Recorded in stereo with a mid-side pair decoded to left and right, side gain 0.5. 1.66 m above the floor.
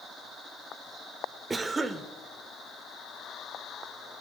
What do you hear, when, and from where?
1.5 s a cough: 25° right, 1.0 m